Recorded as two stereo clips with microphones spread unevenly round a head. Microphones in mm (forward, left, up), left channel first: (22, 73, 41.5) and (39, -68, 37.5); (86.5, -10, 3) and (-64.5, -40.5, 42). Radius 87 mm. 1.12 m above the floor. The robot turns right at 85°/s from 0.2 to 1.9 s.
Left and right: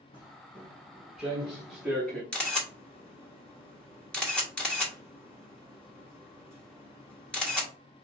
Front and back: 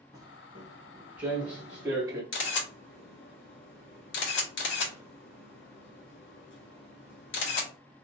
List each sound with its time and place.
0.1 s footsteps: 145° left, 1.5 m; by 2.2 s 175° left, 1.2 m
2.3 s a camera shutter: 15° left, 1.2 m